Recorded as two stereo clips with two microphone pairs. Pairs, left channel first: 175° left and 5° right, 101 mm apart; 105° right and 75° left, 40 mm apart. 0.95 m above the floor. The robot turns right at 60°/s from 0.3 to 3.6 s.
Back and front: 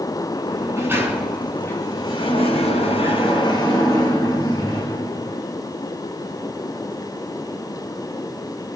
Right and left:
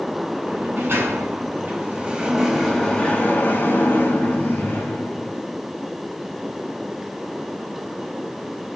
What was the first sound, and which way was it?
A sliding door, 35° left.